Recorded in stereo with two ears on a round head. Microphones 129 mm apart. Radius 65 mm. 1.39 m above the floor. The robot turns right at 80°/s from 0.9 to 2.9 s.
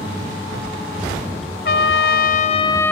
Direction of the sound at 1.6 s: 70° left.